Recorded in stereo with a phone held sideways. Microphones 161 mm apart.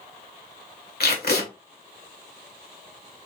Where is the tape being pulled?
75° left (ahead or behind), 1.6 m.